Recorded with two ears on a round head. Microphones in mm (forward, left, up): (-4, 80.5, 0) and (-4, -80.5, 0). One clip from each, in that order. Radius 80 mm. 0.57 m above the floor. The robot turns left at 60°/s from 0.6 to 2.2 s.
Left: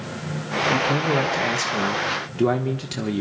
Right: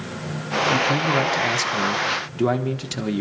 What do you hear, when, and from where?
0.7 s a man speaking: 70° right, 1.4 m; by 3.2 s 160° right, 1.4 m